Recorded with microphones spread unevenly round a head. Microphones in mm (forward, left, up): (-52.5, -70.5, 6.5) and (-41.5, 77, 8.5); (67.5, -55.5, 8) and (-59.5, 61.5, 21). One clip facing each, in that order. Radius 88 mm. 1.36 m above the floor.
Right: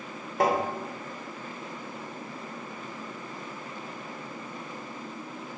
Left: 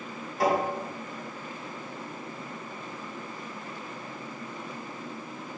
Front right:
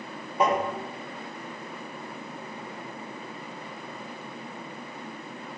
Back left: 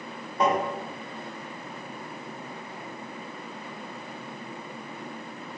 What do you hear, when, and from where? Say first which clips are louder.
0.4 s tapping: even, even; 125° right, 1.2 m